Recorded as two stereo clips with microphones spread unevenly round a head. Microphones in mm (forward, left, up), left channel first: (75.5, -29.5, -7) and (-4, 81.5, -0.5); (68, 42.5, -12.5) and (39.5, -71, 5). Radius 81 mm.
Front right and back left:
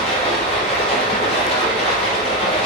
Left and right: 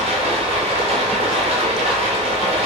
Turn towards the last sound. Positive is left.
turn(degrees=-100)